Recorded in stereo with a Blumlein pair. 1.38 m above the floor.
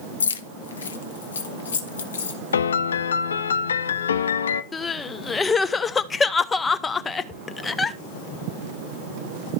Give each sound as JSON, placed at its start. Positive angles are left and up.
{"t": 0.2, "sound": "keys jangling", "azimuth_deg": 70, "distance_m": 0.7}
{"t": 2.5, "sound": "a piano", "azimuth_deg": 65, "distance_m": 0.5}
{"t": 4.7, "sound": "crying", "azimuth_deg": 15, "distance_m": 0.6}